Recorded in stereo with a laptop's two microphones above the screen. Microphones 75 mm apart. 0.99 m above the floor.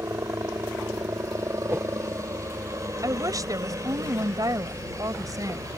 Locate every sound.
0.0 s a helicopter: 40° right (ahead or behind); by 5.8 s 45° right (ahead or behind)
1.7 s a whoosh: 35° right (ahead or behind)
3.0 s a woman speaking: 50° right (ahead or behind)